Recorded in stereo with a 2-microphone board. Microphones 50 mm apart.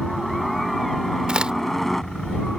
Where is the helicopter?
Centre (ahead or behind); by 2.6 s 5° left (ahead or behind).